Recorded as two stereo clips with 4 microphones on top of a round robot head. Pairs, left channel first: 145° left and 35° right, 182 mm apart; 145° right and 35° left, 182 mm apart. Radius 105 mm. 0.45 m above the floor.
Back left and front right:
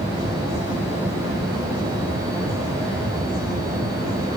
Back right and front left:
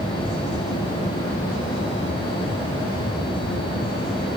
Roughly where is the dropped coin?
No dropped coin in this recording.